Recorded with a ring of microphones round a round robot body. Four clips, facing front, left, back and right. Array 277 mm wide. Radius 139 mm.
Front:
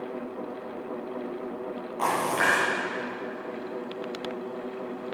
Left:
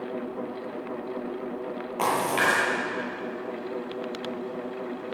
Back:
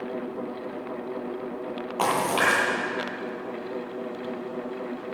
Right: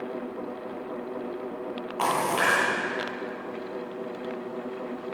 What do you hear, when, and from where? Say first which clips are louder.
2.0 s a splash: even, back 2 dB; 150° left, 9.5 m